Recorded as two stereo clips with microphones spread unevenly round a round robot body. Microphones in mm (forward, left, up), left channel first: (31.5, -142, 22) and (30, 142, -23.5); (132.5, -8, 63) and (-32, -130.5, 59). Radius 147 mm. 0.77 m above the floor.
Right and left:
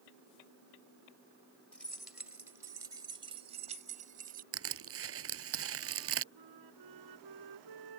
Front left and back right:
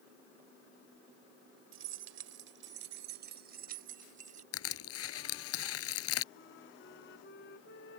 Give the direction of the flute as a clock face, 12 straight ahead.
9 o'clock.